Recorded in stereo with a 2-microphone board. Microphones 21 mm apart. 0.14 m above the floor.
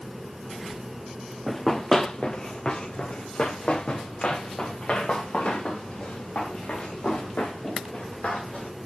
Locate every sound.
1.5 s running footsteps: 10° left (ahead or behind), 0.7 m; by 8.7 s 75° left (ahead or behind), 5 m